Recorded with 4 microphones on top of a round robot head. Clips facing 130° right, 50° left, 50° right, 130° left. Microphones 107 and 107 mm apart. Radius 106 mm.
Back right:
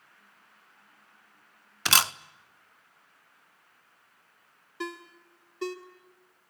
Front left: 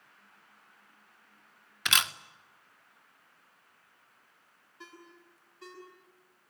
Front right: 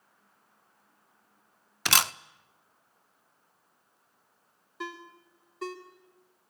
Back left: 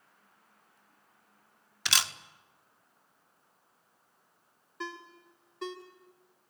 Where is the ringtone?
140° right, 2.5 m.